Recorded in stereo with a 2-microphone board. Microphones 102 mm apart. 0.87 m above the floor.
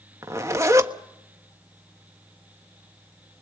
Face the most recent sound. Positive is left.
turn(degrees=-30)  # may be behind; listen again after turning